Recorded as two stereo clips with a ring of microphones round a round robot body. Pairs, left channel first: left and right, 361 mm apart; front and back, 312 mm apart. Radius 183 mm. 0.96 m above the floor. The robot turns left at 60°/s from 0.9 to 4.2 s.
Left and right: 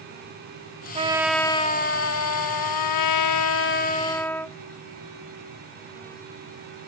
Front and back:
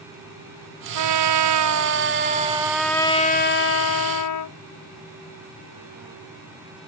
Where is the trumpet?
160° right; by 4.6 s 5° left.